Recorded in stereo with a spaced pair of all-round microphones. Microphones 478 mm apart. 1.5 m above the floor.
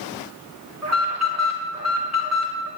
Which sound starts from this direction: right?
An alarm, at 0.8 s.